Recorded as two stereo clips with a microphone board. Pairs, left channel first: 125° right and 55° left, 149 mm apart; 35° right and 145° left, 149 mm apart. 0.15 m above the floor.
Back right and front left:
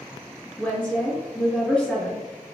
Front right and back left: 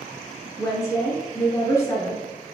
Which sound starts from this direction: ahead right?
A woman speaking, at 0.6 s.